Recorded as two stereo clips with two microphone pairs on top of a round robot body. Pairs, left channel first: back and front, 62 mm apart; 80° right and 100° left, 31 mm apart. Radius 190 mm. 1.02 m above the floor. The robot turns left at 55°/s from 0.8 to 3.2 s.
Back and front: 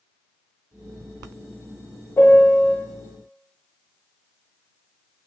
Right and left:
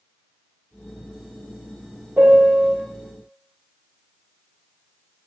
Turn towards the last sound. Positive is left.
turn(degrees=70)